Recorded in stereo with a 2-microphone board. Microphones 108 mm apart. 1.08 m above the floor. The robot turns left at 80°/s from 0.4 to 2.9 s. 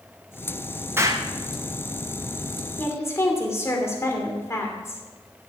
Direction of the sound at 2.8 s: 15° left (ahead or behind).